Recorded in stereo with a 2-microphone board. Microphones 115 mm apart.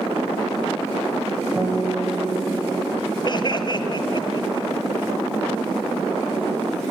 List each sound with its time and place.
1.6 s a guitar: 15° right (ahead or behind), 9.5 m
3.2 s laughter: 40° left (ahead or behind), 1.6 m